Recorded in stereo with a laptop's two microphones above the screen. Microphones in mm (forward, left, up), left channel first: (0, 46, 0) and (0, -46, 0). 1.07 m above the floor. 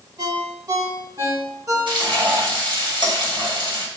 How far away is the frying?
About 3 m.